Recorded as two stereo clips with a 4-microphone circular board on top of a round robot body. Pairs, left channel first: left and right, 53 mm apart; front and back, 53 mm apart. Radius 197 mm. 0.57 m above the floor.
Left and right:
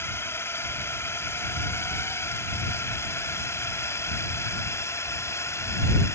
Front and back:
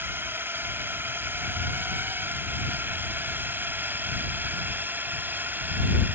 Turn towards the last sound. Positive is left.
turn(degrees=125)